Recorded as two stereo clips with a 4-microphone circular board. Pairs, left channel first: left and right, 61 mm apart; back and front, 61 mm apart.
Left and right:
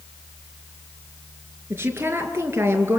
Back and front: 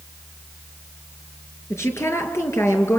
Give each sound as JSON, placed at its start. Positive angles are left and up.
{"t": 1.7, "sound": "a woman speaking", "azimuth_deg": -140, "distance_m": 5.0}